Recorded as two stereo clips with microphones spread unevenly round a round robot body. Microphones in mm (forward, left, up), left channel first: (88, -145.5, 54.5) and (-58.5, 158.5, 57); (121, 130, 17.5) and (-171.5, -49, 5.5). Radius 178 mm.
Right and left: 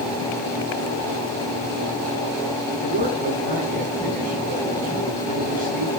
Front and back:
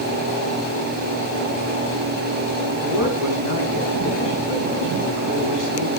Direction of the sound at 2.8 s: 175° right.